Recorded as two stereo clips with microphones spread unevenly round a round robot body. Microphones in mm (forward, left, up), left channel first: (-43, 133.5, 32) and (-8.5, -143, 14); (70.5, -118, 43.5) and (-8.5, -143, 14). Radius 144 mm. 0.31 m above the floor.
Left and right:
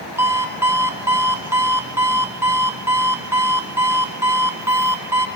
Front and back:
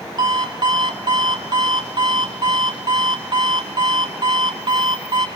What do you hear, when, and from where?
0.2 s an alarm clock: 165° right, 1.5 m